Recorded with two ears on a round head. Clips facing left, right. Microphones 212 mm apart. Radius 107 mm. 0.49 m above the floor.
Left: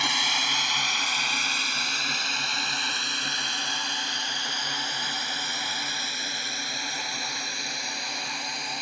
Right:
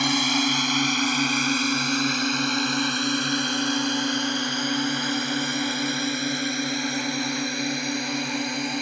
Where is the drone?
40° right (ahead or behind); by 8.8 s 50° right (ahead or behind).